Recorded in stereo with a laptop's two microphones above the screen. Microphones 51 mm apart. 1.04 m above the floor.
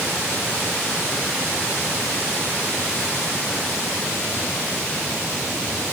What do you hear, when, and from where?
Only background noise.